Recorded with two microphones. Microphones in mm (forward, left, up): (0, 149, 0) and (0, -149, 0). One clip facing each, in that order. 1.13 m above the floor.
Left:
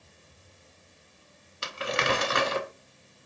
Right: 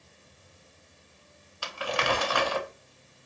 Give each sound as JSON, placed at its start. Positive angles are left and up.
{"t": 1.6, "sound": "crumpling", "side_deg": 25, "distance_m": 0.6}